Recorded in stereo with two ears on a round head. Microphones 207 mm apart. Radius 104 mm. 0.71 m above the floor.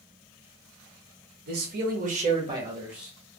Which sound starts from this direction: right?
A man speaking, at 1.5 s.